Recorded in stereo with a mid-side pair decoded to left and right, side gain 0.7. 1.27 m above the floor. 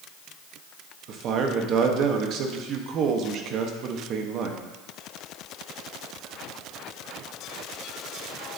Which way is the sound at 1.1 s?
50° right.